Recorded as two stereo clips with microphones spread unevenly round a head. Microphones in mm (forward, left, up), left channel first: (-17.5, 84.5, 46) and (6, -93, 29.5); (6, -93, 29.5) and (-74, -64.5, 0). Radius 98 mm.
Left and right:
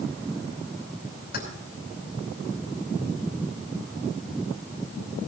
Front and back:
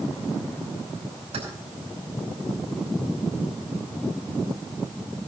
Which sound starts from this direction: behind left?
Keys jangling, at 1.3 s.